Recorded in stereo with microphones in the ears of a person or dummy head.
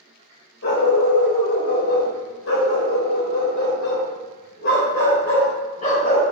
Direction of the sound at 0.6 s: 65° left (ahead or behind).